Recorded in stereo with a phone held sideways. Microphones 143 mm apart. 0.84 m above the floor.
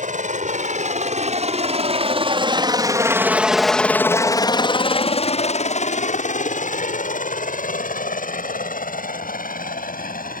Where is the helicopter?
65° right (ahead or behind); by 10.4 s 75° left (ahead or behind).